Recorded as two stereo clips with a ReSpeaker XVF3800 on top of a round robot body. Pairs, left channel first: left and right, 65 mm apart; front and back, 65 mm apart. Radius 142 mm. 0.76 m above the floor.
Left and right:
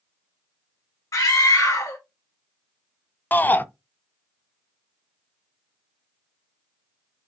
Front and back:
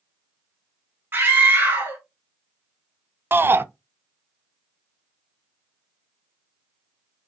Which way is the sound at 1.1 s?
120° left.